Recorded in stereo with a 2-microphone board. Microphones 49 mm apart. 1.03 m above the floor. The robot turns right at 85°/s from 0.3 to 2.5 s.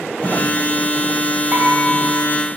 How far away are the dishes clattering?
About 3.5 m.